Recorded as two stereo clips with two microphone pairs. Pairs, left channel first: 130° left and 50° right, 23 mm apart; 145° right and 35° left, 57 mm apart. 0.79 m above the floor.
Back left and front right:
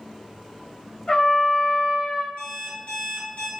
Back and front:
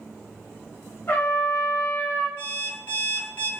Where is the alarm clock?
165° left, 1.2 m.